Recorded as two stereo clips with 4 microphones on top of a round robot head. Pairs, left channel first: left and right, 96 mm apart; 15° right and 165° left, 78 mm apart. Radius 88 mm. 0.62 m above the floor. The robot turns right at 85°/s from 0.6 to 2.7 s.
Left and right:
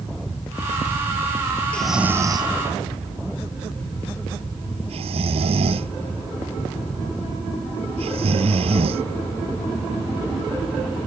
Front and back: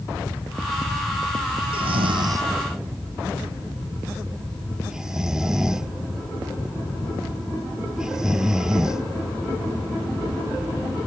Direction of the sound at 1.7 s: 170° left.